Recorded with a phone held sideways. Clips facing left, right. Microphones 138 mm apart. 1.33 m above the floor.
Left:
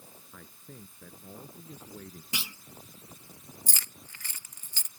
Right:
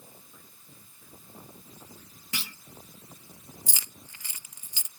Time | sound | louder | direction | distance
0.3 | a man speaking | left 7 dB | 85° left | ?
2.3 | a clunk | right 1 dB | 15° left (ahead or behind) | ?
3.7 | keys jangling | even | 15° right (ahead or behind) | ?